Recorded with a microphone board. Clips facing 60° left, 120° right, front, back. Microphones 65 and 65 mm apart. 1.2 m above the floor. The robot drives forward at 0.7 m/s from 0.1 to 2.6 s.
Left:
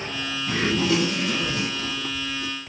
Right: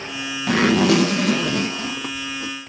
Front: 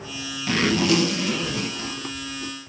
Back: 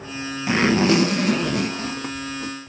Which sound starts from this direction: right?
A zipper, at 0.5 s.